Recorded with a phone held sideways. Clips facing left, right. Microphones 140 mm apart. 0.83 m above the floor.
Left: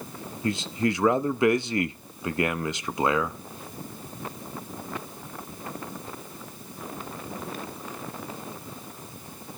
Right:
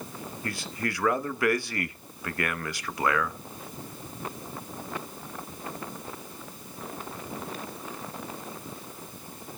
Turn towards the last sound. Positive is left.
turn(degrees=20)  # may be behind; listen again after turning